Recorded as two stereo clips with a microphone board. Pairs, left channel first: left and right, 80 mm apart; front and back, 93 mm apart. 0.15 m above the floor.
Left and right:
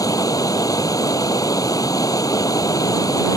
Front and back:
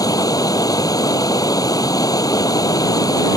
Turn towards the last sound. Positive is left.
turn(degrees=50)